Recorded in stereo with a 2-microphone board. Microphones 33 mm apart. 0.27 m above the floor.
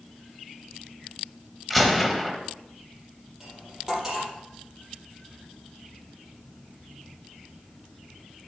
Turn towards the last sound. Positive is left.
turn(degrees=-20)  # may be behind; listen again after turning